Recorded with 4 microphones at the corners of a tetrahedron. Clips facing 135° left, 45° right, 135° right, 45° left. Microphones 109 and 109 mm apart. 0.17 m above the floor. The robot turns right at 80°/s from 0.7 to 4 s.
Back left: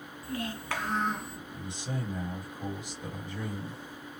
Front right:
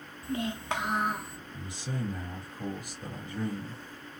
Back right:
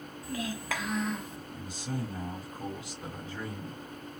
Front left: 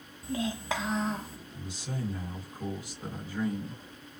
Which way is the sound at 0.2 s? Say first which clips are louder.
Front right 3 dB, front left 3 dB; straight ahead.